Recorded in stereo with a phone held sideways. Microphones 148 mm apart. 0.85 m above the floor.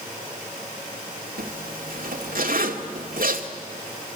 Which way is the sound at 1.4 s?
70° right (ahead or behind).